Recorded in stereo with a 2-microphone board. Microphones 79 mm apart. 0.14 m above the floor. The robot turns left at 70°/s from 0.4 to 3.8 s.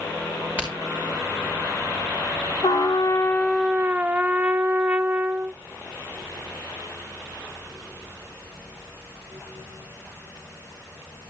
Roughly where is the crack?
Centre.